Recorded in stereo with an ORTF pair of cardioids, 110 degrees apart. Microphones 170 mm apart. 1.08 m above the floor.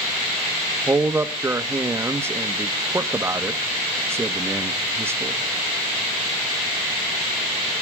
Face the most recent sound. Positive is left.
turn(degrees=-15)